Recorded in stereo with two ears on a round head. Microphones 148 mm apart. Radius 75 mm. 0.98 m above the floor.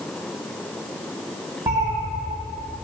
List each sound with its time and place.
1.7 s a cat meowing: 20° right (ahead or behind), 1.5 m